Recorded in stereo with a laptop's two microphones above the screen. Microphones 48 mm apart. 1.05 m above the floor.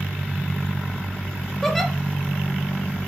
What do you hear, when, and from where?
1.6 s a giggle: 5° left (ahead or behind), 0.8 m